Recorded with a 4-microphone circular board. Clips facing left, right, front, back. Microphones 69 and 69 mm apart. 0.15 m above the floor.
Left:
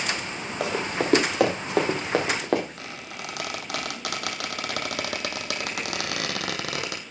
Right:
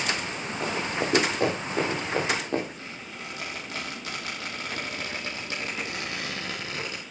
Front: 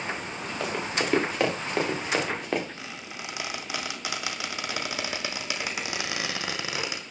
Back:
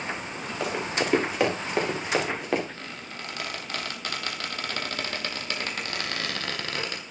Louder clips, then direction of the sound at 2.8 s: Left 2 dB, even; 80° left.